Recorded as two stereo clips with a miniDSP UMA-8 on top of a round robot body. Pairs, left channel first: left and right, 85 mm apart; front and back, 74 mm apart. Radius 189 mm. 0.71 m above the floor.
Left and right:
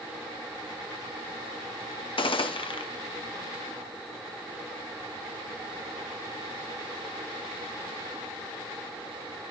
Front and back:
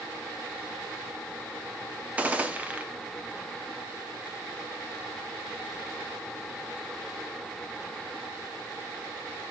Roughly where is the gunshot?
Left.